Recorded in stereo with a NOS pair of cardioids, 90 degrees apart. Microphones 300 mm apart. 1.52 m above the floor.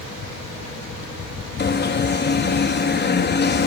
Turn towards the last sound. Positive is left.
turn(degrees=35)